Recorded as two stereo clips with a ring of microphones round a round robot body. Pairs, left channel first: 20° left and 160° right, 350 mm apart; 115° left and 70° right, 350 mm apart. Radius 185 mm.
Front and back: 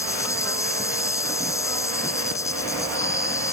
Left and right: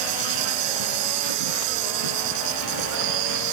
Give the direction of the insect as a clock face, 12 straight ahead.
2 o'clock.